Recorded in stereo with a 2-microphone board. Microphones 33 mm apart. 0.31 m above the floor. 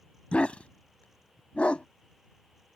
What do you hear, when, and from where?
0.3 s a dog barking: 45° left (ahead or behind)